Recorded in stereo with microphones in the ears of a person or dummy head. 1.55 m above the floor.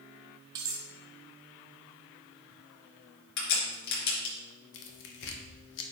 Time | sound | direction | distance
0.6 | cutlery clinking | 25° right (ahead or behind) | 1.0 m
3.4 | a crack | 75° left (ahead or behind) | 4 m
4.7 | tearing paper | 70° left (ahead or behind) | 1.1 m